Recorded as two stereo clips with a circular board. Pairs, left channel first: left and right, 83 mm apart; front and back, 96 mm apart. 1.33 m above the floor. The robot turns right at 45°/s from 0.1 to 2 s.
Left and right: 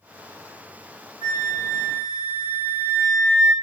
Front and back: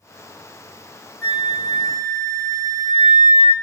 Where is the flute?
115° right, 1.4 m; by 3.5 s 80° right, 1.4 m.